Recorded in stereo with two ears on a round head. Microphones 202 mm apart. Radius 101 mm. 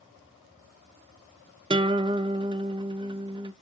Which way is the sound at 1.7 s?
20° right (ahead or behind).